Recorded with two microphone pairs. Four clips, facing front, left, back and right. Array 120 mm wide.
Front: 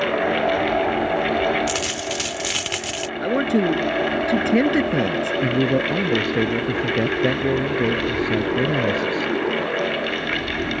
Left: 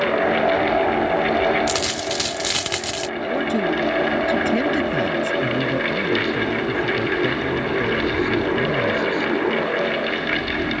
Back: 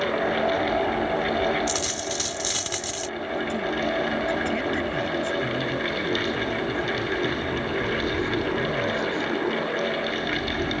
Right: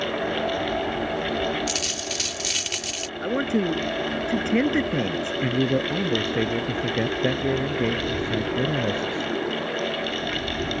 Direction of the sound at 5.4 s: 20° right.